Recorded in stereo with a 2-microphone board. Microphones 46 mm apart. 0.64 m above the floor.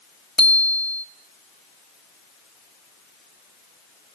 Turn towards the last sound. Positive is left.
turn(degrees=30)  # may be behind; listen again after turning